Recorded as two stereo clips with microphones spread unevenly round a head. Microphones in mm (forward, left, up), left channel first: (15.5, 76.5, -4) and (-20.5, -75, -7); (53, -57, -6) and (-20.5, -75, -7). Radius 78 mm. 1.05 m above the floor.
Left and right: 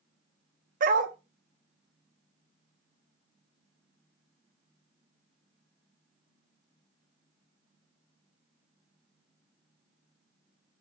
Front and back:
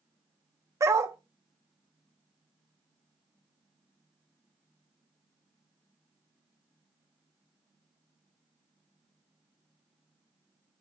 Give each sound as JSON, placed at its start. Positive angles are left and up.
{"t": 0.8, "sound": "a dog barking", "azimuth_deg": -125, "distance_m": 0.6}